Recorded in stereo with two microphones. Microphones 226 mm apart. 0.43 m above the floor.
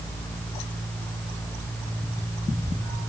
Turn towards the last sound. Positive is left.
No sound to turn to.